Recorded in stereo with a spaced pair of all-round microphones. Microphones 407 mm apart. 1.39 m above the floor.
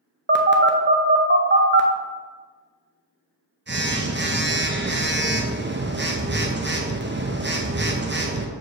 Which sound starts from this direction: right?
A phone buzzing, at 0.3 s.